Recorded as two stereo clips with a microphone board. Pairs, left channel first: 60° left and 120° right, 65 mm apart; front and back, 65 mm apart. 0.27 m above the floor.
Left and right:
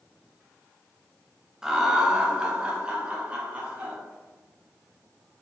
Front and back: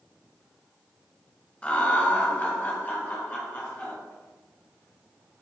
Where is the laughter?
50° right, 1.1 m; by 4.0 s 55° right, 2 m.